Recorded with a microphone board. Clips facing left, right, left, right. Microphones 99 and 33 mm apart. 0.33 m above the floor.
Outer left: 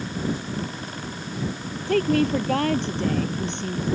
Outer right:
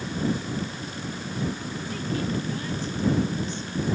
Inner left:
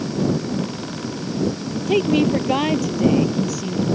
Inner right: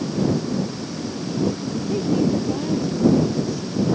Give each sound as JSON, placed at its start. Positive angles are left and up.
{"t": 1.9, "sound": "a woman speaking", "side_deg": 60}